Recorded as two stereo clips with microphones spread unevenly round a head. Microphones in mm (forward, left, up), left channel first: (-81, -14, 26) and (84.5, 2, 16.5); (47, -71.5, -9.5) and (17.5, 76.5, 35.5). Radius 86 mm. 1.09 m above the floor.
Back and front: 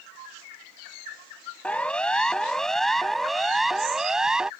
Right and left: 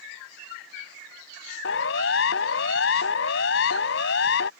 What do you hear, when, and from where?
1.6 s a siren: 90° right; by 4.5 s 80° right